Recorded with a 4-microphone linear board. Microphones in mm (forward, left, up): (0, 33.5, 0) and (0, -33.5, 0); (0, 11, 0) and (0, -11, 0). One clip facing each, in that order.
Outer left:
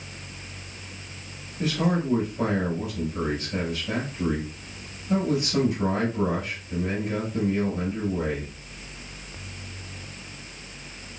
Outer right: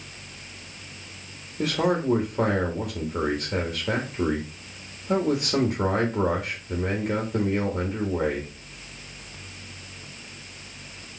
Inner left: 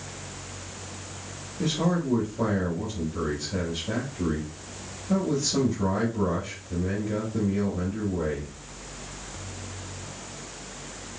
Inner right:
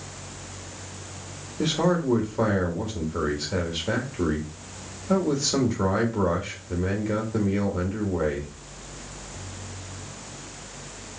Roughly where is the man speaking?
Right.